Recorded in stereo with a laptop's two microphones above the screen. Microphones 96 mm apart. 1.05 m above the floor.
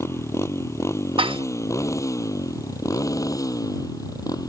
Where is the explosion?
I don't hear an explosion.